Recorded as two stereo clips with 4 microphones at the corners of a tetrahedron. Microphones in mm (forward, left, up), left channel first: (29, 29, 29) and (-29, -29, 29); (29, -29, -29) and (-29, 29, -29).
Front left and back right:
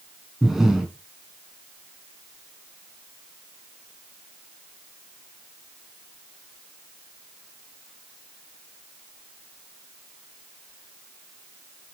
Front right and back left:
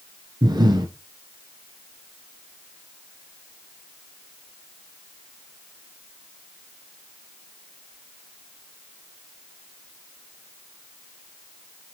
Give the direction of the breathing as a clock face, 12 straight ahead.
7 o'clock.